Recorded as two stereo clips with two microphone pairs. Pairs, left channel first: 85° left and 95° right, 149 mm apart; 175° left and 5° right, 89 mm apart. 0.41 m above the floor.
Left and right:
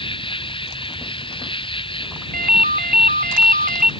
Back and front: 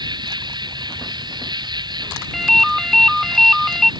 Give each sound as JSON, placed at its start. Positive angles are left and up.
{"t": 0.0, "sound": "an insect", "azimuth_deg": 30}
{"t": 2.3, "sound": "a ringtone", "azimuth_deg": -95}